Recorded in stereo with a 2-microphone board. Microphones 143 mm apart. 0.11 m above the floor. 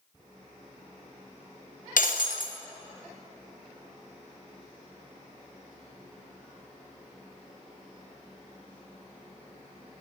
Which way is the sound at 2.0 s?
80° left.